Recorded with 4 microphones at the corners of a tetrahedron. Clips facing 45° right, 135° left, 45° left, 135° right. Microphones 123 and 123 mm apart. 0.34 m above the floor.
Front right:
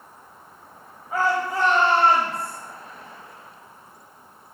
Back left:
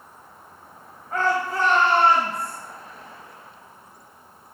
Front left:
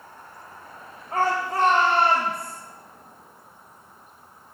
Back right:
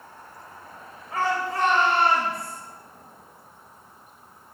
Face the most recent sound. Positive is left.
turn(degrees=-25)